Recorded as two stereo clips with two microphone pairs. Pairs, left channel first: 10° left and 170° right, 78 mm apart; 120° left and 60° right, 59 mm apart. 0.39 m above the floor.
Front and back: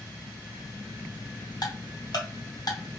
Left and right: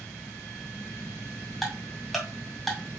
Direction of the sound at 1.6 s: 30° left.